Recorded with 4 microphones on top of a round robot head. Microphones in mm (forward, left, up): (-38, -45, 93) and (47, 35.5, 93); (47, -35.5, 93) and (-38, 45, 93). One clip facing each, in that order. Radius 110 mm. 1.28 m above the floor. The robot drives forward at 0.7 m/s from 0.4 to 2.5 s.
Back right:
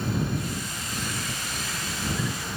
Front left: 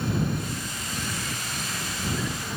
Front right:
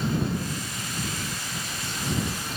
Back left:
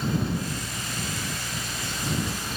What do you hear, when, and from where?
Only background noise.